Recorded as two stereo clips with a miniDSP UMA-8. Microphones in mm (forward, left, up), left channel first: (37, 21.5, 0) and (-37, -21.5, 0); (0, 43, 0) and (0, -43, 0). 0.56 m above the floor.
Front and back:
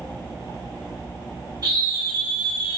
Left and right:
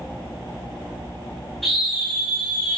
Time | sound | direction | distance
1.6 | a scream | straight behind | 3 m